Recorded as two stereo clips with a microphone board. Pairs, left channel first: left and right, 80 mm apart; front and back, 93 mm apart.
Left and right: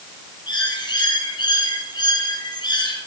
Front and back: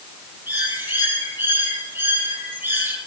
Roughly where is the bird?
Behind left.